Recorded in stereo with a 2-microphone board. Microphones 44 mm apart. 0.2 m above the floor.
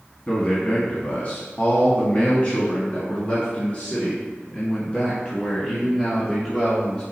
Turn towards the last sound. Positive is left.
turn(degrees=20)  # may be behind; listen again after turning